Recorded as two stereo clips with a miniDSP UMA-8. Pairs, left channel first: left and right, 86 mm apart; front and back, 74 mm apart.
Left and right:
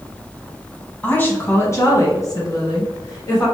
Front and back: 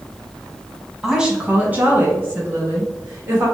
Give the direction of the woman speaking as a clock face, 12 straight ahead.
8 o'clock.